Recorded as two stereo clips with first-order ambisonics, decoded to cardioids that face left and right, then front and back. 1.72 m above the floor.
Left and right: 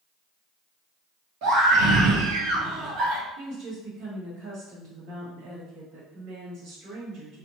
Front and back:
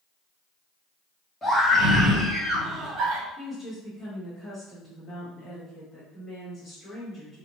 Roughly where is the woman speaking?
Right.